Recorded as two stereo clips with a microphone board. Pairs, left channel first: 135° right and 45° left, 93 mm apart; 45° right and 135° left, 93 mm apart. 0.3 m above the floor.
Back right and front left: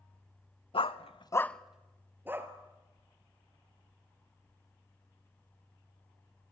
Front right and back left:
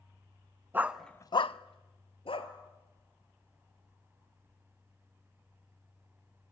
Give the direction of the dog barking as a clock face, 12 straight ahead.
5 o'clock.